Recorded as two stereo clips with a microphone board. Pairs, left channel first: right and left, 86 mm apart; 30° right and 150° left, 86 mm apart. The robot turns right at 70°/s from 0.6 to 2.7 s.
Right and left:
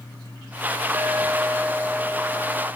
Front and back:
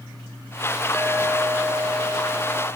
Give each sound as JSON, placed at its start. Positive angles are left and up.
{"t": 0.9, "sound": "a clink", "azimuth_deg": 80, "distance_m": 0.7}